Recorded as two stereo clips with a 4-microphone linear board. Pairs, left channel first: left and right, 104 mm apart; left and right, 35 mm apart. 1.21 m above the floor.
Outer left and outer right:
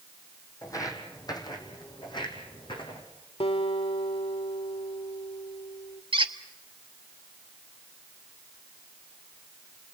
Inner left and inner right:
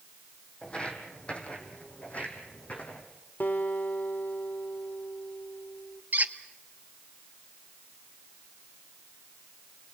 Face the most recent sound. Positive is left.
turn(degrees=-55)  # may be behind; listen again after turning